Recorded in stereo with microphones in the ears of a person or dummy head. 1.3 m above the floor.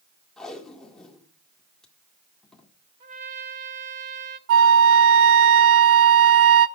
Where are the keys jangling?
I don't hear keys jangling.